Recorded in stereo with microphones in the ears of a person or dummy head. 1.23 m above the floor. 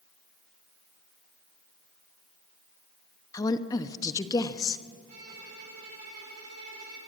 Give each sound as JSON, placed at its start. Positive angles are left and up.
{"t": 3.3, "sound": "a woman speaking", "side_deg": 25, "distance_m": 0.9}
{"t": 5.1, "sound": "a violin", "side_deg": -50, "distance_m": 8.5}